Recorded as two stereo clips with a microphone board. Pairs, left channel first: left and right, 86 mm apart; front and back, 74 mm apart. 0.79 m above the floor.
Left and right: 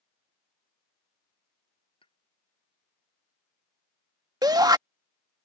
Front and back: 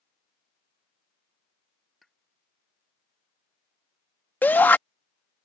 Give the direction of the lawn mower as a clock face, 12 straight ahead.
I don't hear a lawn mower.